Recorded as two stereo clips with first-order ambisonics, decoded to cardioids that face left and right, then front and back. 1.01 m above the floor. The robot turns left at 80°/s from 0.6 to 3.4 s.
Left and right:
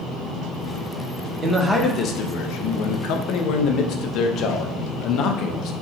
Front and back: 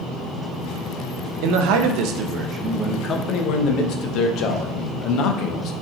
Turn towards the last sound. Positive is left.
turn(degrees=40)